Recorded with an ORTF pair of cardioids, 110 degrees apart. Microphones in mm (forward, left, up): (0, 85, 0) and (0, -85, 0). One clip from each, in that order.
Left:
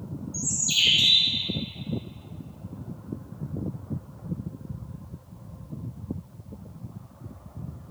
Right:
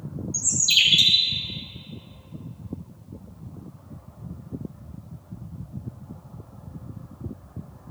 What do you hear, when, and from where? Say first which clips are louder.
0.3 s a bird: right 5 dB; 45° right, 2.0 m